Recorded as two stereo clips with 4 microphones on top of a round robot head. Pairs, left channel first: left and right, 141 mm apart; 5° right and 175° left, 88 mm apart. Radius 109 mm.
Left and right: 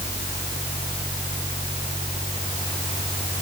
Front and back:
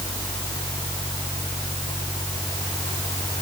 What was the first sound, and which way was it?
Only background noise.